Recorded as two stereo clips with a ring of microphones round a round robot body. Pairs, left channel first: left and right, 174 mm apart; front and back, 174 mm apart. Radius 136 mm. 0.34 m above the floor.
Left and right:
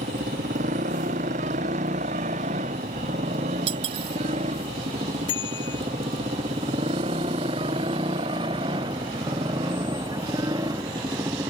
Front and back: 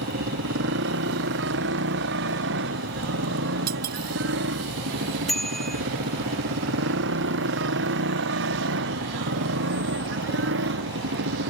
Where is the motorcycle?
150° right; by 11.5 s 170° right.